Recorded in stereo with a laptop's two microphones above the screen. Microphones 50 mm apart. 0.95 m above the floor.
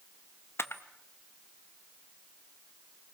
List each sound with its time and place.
0.6 s a camera shutter: 55° left (ahead or behind), 1.0 m